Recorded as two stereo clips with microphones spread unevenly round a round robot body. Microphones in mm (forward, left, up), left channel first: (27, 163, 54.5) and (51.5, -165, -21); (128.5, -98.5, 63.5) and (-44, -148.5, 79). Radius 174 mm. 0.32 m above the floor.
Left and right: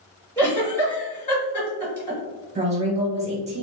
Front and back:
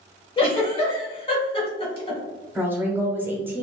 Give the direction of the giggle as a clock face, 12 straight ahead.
12 o'clock.